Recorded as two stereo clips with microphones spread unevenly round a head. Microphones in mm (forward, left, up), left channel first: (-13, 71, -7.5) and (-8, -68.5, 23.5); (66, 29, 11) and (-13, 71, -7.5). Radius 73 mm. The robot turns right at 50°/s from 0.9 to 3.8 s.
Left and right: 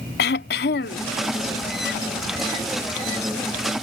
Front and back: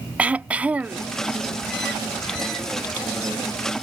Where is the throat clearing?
75° left; by 1.1 s 85° left.